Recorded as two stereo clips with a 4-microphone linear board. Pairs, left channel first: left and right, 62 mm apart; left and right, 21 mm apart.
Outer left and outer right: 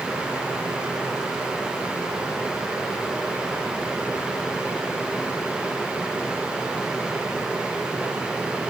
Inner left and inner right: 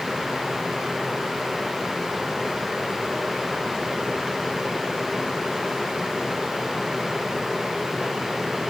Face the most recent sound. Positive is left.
No sound to turn to.